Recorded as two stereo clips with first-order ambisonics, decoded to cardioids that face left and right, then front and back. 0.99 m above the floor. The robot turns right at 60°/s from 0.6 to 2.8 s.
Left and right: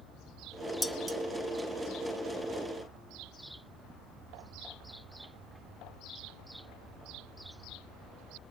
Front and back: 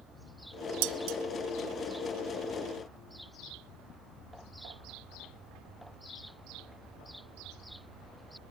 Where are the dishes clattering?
175° left, 0.7 m; by 1.2 s 165° right, 0.7 m.